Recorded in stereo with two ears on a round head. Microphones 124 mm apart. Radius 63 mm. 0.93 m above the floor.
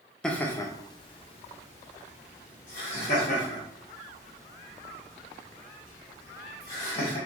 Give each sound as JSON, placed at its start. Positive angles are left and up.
{"t": 0.2, "sound": "laughter", "side_deg": 5, "distance_m": 0.6}